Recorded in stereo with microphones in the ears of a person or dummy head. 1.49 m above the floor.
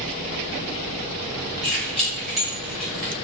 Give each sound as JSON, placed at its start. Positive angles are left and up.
{"t": 1.6, "sound": "keys jangling", "side_deg": 0, "distance_m": 1.5}